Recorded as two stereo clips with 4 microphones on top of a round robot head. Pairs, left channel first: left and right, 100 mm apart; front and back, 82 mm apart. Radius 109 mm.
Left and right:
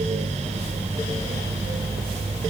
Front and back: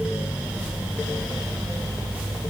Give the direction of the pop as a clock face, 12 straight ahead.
I don't hear a pop.